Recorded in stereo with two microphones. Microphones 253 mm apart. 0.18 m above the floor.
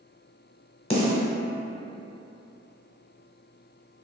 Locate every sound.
0.9 s a snare drum: 20° left (ahead or behind), 0.9 m